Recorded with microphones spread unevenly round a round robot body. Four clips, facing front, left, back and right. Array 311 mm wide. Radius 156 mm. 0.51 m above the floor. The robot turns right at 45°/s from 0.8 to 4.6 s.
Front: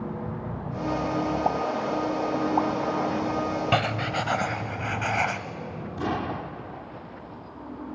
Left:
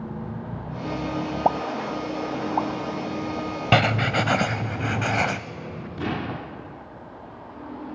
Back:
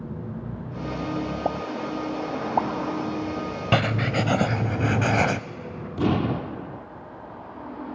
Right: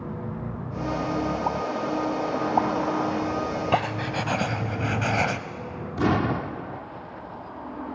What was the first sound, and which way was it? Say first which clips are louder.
A pop: left 3 dB, front 2 dB; 140° left.